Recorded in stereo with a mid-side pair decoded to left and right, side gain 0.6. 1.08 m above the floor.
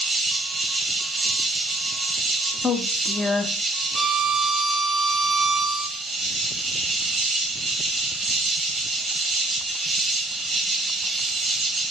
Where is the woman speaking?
20° left, 0.6 m.